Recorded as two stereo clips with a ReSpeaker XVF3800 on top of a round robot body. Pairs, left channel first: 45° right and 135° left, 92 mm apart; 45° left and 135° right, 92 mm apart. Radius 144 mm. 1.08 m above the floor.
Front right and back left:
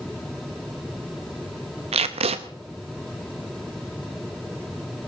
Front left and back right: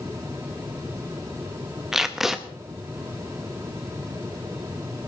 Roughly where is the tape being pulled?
Behind left.